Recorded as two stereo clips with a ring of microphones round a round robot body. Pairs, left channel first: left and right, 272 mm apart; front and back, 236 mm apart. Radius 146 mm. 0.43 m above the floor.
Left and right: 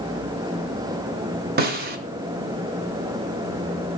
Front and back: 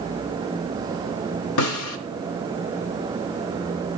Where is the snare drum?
30° right, 0.7 m.